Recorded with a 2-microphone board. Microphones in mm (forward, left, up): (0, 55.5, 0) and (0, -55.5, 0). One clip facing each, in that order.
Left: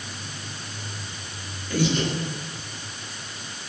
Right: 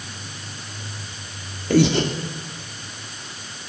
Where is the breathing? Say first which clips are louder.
Right 7 dB; 70° right (ahead or behind), 1.8 m.